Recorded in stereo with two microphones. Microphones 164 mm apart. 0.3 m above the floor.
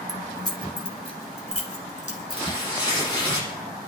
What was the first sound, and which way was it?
Keys jangling, 20° left (ahead or behind).